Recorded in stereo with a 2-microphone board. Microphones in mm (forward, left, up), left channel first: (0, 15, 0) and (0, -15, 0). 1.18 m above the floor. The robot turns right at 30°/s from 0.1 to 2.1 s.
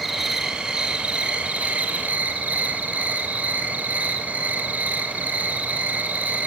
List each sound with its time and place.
0.0 s an insect: 175° right, 3.5 m; by 6.5 s 115° right, 3.5 m